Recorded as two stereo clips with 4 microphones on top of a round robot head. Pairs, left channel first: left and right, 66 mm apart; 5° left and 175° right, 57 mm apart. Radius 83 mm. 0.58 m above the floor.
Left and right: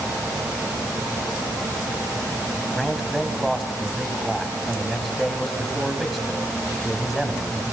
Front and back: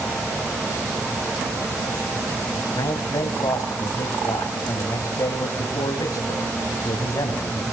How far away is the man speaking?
About 3.5 m.